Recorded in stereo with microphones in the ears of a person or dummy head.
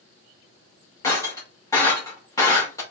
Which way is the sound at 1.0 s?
20° left (ahead or behind).